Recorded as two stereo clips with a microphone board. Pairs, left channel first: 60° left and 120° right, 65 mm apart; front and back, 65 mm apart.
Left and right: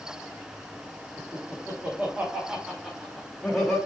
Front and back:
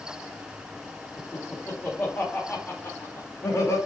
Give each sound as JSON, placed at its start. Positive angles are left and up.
{"t": 1.2, "sound": "laughter", "azimuth_deg": -75, "distance_m": 1.9}